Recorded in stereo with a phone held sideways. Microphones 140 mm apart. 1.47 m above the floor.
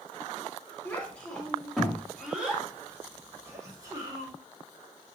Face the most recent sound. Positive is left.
turn(degrees=-30)  # may be behind; listen again after turning